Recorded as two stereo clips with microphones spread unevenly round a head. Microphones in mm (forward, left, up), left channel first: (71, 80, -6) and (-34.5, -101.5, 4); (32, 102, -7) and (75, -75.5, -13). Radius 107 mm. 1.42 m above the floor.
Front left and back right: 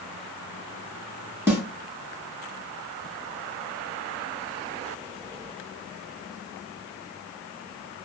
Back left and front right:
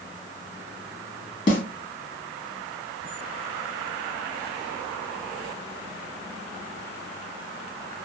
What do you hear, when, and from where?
1.5 s a snare drum: 165° left, 1.0 m